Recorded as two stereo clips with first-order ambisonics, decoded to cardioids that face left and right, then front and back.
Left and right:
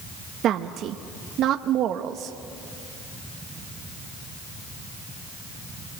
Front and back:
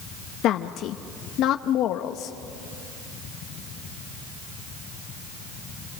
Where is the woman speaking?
40° right, 0.8 m.